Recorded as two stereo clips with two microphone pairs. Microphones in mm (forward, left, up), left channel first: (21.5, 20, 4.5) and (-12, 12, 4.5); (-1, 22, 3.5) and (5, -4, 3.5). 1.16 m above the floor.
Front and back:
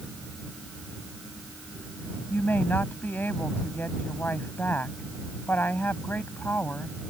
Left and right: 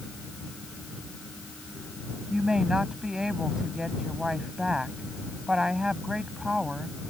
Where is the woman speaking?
10° right.